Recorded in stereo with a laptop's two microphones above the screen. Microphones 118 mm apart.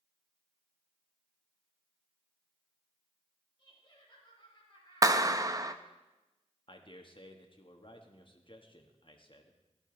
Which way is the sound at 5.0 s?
30° right (ahead or behind).